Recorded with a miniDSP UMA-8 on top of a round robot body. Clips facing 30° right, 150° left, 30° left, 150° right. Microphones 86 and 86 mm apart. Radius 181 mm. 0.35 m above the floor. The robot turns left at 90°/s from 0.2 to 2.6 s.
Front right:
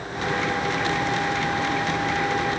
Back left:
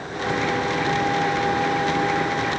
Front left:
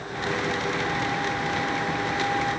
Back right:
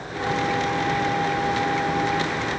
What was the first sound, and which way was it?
Only background noise.